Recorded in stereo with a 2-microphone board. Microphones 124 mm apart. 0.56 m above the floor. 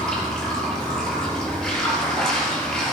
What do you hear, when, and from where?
0.0 s running water: 5° left (ahead or behind), 6.5 m